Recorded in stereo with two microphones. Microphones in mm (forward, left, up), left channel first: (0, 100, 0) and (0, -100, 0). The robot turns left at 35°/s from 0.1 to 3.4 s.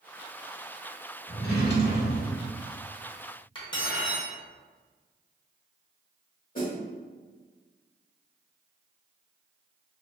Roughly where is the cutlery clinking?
Left.